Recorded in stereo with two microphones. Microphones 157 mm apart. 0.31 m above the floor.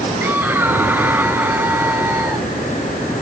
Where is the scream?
15° right (ahead or behind).